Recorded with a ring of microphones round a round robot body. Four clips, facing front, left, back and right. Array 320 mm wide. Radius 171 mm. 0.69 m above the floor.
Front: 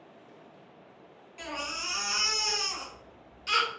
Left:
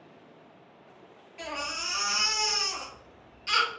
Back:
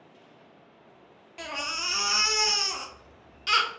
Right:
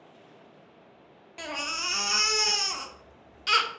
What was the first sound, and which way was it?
A baby crying, 125° right.